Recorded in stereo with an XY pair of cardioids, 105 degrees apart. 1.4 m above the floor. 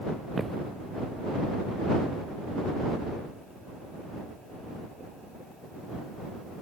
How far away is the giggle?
I don't hear a giggle.